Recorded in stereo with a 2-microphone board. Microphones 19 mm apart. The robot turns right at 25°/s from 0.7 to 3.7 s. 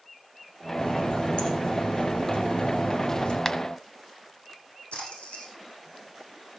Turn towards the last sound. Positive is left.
turn(degrees=80)